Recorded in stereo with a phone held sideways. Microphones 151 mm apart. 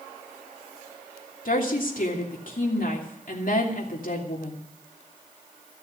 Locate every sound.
1.4 s a woman speaking: 65° left (ahead or behind), 3 m